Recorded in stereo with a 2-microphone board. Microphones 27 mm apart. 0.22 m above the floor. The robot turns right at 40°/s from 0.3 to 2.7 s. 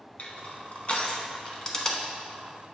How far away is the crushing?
About 0.9 m.